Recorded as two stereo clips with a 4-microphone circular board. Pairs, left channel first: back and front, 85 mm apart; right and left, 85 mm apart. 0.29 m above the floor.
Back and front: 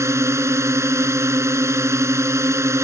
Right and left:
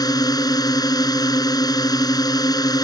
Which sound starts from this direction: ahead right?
A drone, at 0.0 s.